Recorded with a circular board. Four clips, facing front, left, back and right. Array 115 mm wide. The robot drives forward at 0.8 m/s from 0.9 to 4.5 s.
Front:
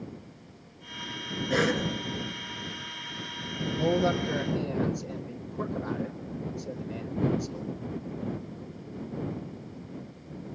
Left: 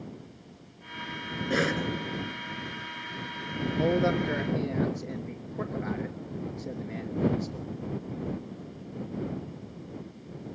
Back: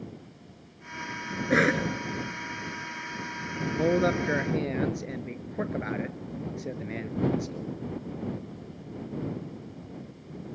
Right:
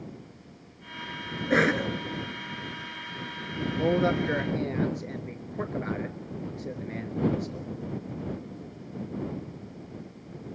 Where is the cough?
140° right, 2 m; by 1.9 s 145° right, 2 m.